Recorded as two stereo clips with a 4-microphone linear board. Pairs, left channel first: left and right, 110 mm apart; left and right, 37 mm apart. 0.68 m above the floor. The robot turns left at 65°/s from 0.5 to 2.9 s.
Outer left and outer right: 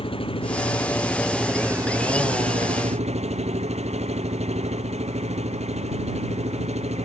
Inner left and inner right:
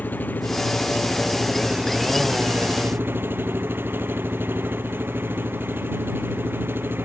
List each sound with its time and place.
0.0 s an engine running: 55° left; by 7.1 s 100° right